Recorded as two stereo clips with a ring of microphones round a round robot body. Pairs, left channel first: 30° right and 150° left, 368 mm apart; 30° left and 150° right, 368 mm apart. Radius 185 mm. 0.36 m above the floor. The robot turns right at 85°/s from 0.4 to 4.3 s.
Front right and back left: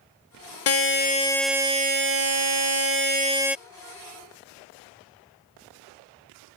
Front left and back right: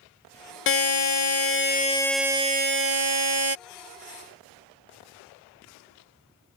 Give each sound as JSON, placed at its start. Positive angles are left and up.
{"t": 0.7, "sound": "a buzzer", "azimuth_deg": -10}